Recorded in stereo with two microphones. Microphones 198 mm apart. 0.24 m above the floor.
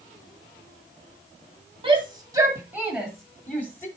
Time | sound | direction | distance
1.8 | a shout | 25° right (ahead or behind) | 2 m